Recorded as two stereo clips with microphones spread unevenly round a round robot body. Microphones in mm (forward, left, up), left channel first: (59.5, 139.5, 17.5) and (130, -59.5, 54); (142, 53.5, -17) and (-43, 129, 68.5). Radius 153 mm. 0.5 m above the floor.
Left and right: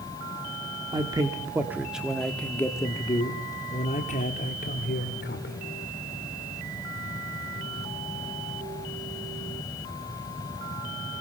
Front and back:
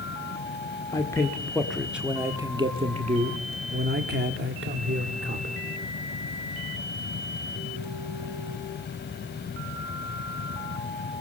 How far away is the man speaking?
About 1.5 m.